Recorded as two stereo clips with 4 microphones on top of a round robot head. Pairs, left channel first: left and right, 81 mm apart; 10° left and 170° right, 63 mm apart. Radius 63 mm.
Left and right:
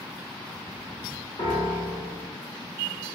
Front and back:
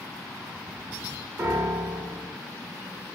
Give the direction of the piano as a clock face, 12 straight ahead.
7 o'clock.